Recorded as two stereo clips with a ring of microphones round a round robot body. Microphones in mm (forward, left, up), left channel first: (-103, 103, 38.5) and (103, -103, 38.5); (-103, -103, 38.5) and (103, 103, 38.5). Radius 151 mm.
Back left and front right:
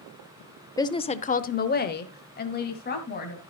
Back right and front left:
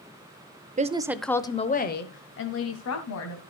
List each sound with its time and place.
0.8 s a woman speaking: 70° left, 0.9 m; by 3.4 s 165° right, 2.5 m